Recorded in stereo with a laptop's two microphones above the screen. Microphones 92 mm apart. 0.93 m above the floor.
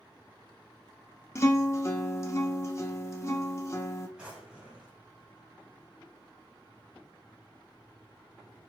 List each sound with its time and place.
1.4 s a guitar: 30° left (ahead or behind), 0.8 m
4.2 s a drawer: 10° right (ahead or behind), 1.6 m